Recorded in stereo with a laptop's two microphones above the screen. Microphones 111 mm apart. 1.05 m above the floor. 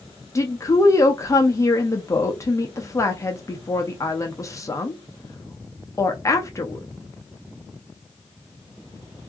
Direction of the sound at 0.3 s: 30° left (ahead or behind).